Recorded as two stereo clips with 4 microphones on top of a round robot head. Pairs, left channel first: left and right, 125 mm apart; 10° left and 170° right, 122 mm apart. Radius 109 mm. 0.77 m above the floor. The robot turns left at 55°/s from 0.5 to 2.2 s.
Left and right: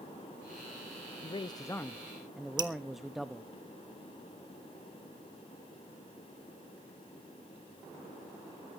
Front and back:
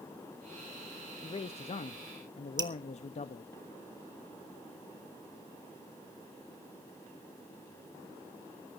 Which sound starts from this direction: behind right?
Dripping, at 2.6 s.